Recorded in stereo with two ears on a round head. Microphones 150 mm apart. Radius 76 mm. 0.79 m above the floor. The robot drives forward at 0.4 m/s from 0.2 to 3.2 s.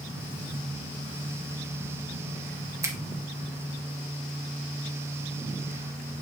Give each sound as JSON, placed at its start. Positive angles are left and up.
{"t": 2.8, "sound": "a finger snap", "side_deg": -15, "distance_m": 1.2}